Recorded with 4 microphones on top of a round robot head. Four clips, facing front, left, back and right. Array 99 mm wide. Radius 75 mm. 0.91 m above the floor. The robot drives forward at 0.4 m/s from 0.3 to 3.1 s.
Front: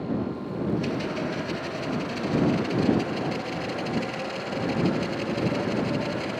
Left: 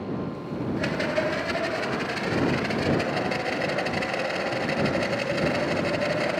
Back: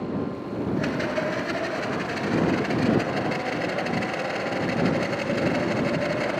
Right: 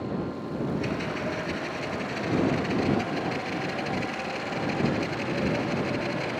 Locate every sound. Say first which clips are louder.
0.8 s a rattle: left 4 dB, back 3 dB; 140° left, 6 m; by 6.4 s 145° left, 7 m